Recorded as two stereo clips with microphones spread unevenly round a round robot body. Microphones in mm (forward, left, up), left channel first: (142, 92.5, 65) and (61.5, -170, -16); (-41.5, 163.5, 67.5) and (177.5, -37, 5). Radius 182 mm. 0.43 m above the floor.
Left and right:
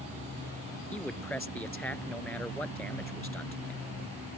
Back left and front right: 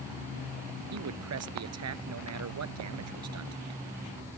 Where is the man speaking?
10° right.